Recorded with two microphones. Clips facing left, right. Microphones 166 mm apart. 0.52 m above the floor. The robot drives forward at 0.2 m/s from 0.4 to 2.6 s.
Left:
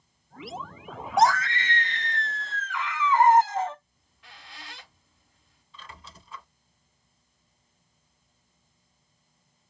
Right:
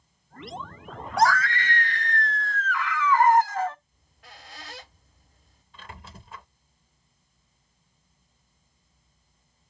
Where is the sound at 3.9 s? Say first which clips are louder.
Right 3 dB; 45° right (ahead or behind), 0.9 m.